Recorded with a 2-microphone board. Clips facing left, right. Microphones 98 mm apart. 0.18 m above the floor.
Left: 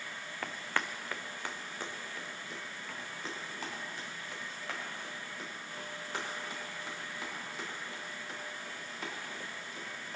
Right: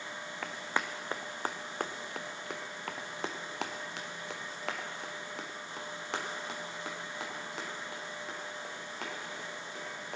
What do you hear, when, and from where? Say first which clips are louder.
0.4 s running footsteps: right 1 dB; centre (ahead or behind), 0.9 m; by 10.2 s 80° right, 5.5 m